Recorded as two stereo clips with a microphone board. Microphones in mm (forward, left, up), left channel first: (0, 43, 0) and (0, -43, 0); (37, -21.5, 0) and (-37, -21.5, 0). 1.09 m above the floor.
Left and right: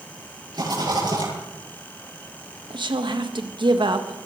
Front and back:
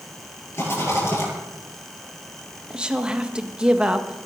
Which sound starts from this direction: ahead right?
A rattle, at 0.5 s.